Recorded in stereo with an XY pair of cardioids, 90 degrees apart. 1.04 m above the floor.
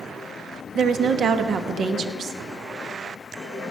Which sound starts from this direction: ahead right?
A woman speaking, at 0.8 s.